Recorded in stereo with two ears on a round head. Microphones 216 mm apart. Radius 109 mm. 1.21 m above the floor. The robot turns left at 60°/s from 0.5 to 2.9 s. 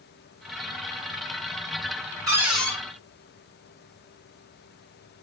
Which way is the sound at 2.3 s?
160° right.